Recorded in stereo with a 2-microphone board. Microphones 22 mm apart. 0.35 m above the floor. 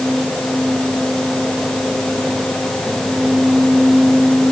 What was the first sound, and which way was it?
Only background noise.